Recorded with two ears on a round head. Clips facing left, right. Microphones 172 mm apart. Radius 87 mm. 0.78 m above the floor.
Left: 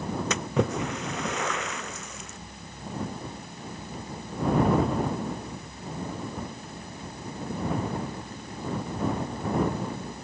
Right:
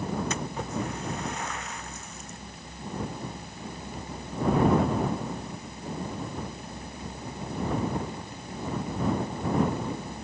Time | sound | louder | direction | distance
0.3 | a splash | left 6 dB | 55° left (ahead or behind) | ?